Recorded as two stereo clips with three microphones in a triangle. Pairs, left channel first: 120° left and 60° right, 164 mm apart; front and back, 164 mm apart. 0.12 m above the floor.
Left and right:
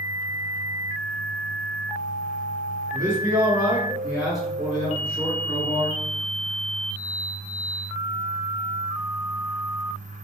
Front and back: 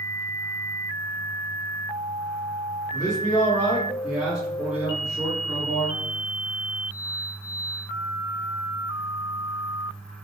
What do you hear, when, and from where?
2.9 s a man speaking: 30° right, 1.6 m; by 6.0 s 170° left, 1.7 m